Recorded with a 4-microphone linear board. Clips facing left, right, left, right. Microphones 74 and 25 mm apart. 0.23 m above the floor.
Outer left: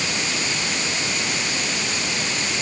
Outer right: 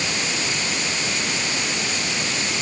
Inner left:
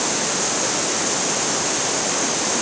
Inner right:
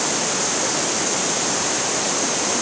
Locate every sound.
Only background noise.